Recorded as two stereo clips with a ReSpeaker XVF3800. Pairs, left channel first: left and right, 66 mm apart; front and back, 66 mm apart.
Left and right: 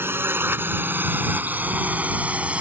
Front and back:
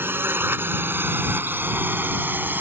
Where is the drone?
135° right; by 2.6 s 145° right.